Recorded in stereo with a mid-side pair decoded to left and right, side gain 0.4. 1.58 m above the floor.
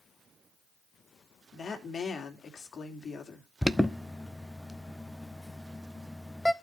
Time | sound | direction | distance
1.5 | a woman speaking | 50° left | 3 m
3.6 | an alarm | 10° left | 0.9 m